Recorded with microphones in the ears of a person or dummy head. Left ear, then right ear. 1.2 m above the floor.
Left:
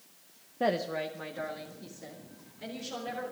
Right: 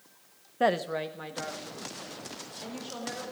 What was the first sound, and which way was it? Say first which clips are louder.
A woman speaking: right 3 dB; 45° right (ahead or behind).